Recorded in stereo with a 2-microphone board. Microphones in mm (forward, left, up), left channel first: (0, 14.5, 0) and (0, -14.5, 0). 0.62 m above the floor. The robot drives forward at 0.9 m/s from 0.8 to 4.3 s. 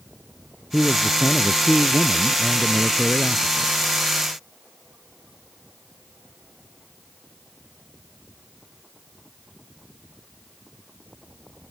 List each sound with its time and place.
0.7 s a man speaking: 10° left (ahead or behind); by 3.7 s 15° left (ahead or behind)